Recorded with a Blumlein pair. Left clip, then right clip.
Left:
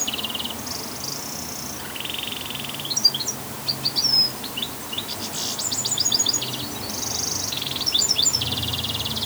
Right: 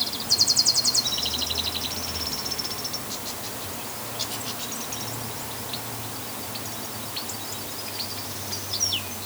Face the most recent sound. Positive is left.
No sound to turn to.